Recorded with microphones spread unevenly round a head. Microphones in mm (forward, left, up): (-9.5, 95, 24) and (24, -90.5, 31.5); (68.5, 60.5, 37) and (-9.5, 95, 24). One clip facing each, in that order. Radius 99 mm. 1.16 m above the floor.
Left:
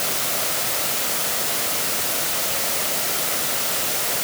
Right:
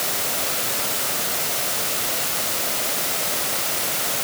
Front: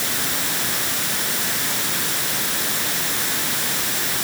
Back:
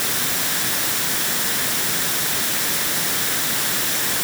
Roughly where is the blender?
No blender in this recording.